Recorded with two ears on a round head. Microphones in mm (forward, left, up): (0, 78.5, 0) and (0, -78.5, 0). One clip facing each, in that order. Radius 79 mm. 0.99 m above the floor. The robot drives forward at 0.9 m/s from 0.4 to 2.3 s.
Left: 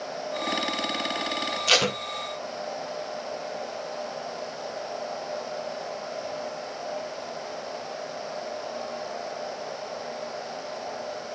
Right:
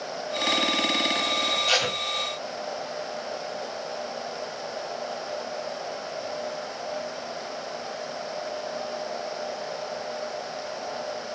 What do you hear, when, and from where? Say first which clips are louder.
1.7 s tape being pulled: left 5 dB; 65° left (ahead or behind), 1.6 m; by 2.0 s 60° left (ahead or behind), 1.6 m